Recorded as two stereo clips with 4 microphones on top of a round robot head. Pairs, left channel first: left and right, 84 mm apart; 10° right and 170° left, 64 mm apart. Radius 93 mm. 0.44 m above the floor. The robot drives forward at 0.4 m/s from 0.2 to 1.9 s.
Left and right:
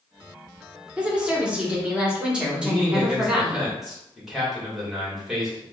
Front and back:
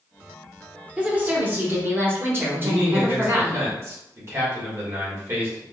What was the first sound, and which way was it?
A woman speaking, 150° right.